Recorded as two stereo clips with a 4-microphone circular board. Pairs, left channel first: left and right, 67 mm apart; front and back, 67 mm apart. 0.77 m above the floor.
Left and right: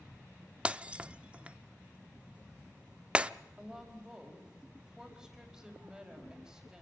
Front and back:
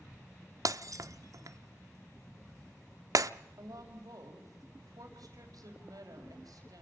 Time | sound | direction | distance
0.7 | breaking glass | 160° right | 0.5 m
3.6 | a woman speaking | 170° right | 4.5 m